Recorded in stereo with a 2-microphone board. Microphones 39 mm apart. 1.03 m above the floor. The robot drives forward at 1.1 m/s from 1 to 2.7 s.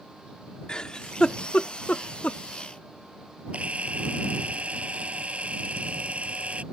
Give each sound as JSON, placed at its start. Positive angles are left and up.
{"t": 0.7, "sound": "a giggle", "side_deg": 20}
{"t": 3.5, "sound": "a camera shutter", "side_deg": -35}